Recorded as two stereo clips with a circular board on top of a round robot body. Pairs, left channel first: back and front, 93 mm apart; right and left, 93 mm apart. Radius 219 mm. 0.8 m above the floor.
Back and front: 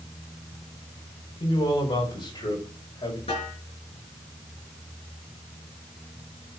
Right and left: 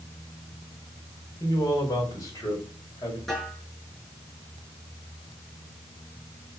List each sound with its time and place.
1.4 s a man speaking: 140° right, 4.5 m; by 3.2 s 145° right, 5.5 m
3.3 s a snare drum: 175° right, 7 m